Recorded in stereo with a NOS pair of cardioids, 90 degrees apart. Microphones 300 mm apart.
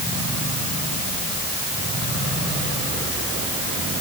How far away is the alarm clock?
I don't hear an alarm clock.